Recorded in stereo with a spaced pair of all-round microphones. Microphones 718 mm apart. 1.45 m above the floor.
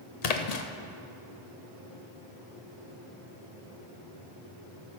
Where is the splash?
60° left (ahead or behind), 0.8 m.